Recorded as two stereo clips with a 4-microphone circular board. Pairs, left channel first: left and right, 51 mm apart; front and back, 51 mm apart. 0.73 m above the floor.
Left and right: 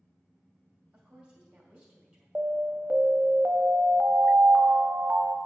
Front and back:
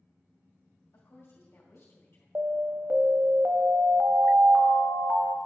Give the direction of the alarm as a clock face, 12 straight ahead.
5 o'clock.